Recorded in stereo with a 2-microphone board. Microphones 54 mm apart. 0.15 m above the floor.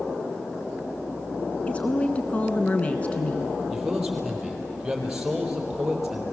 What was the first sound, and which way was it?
A woman speaking, 25° left (ahead or behind).